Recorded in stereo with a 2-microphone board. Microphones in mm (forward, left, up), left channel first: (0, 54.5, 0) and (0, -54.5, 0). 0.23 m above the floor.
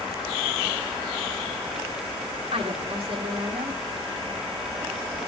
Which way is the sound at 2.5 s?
60° right (ahead or behind).